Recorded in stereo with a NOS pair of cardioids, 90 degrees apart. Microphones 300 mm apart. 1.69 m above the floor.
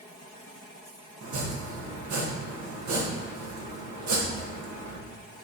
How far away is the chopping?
About 2.0 m.